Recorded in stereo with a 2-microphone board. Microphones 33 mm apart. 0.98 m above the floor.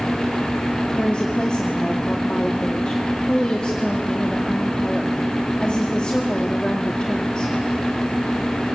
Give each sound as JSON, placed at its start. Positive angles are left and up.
{"t": 0.9, "sound": "a woman speaking", "side_deg": 30, "distance_m": 1.9}